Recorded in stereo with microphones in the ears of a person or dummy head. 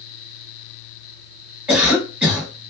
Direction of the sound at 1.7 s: 5° right (ahead or behind).